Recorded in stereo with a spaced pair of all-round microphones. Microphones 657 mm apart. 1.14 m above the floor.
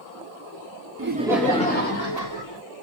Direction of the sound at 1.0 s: 25° right (ahead or behind).